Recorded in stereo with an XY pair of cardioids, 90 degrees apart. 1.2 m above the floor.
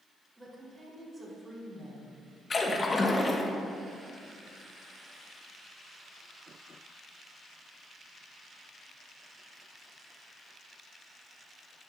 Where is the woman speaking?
15° right, 4 m; by 2.2 s 35° right, 5.5 m.